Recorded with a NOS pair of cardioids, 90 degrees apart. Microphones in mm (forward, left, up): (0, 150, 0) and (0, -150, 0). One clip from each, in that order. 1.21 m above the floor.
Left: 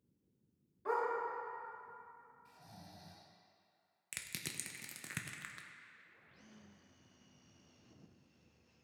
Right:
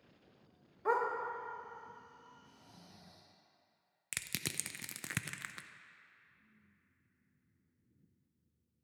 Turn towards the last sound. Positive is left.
turn(degrees=-25)